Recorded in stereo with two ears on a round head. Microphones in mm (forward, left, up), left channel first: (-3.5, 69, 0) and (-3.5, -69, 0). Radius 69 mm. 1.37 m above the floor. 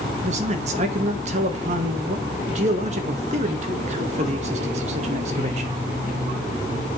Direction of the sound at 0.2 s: 45° right (ahead or behind).